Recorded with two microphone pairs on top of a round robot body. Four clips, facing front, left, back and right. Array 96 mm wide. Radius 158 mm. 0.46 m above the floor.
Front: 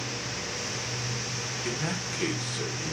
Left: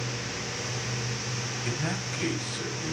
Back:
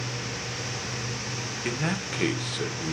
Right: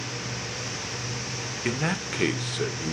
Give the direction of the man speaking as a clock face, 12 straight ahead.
3 o'clock.